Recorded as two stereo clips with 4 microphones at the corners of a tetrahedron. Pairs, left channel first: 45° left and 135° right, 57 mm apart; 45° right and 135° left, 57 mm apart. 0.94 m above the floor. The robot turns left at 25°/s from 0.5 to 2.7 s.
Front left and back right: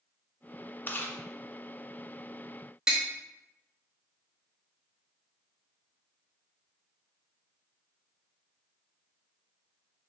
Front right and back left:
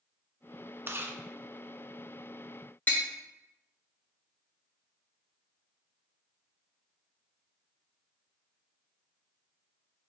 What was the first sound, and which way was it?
Chewing, 95° left.